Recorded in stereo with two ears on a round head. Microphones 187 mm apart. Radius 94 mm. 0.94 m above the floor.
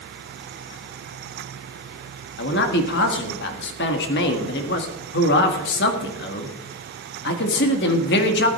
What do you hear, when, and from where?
2.4 s a man speaking: 60° left (ahead or behind), 2 m